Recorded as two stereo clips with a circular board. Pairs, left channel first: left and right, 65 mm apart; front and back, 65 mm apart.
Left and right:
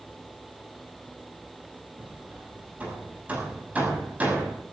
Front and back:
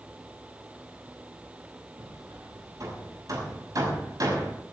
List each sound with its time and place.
2.0 s hammering: 155° right, 6 m